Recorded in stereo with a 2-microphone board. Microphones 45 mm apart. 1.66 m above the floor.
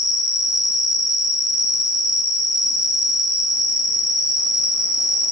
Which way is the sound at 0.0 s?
10° right (ahead or behind).